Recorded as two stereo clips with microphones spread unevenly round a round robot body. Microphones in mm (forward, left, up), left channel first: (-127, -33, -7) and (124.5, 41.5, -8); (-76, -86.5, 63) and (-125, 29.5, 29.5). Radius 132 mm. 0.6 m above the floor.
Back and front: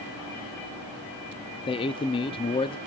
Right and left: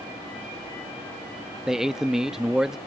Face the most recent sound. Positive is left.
turn(degrees=155)